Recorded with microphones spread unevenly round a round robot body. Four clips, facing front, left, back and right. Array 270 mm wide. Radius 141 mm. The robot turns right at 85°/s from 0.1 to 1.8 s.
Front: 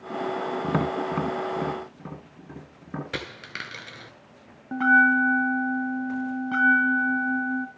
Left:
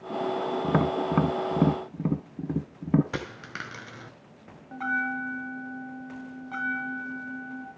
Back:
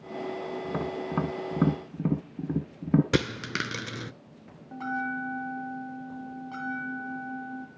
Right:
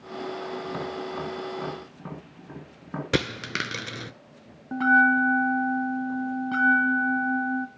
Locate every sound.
0.6 s tapping: 40° left, 1.2 m; by 3.0 s 135° left, 1.2 m
3.1 s a dropped coin: 150° right, 0.8 m
4.7 s a bell: 40° right, 2 m